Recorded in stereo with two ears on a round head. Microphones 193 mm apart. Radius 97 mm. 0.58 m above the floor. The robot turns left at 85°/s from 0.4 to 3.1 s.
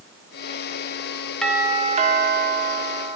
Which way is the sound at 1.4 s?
5° left.